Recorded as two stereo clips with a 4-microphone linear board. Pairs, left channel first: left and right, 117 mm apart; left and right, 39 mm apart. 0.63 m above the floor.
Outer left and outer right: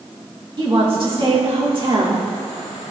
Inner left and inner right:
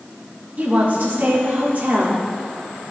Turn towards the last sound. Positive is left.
turn(degrees=-45)  # may be behind; listen again after turning